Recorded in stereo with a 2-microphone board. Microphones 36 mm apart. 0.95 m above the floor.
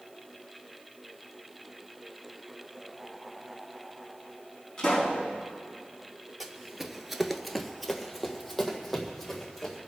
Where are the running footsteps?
10° right (ahead or behind), 1.3 m; by 9.8 s 5° left (ahead or behind), 3.5 m.